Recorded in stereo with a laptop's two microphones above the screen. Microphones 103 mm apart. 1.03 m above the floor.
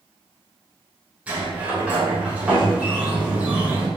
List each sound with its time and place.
1.3 s a sliding door: 15° right (ahead or behind), 0.7 m